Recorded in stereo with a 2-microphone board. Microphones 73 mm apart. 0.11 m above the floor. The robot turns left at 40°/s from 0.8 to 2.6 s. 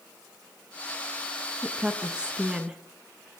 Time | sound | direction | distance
1.6 | a woman speaking | 15° right (ahead or behind) | 1.1 m